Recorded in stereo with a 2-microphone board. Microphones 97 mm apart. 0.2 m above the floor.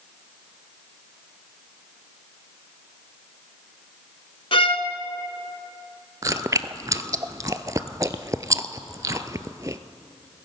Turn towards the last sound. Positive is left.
turn(degrees=-35)  # may be behind; listen again after turning